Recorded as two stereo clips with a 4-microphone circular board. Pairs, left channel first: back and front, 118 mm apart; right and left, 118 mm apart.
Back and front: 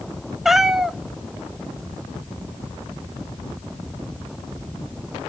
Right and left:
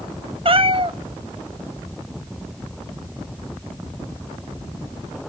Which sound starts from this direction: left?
A cat meowing, at 0.5 s.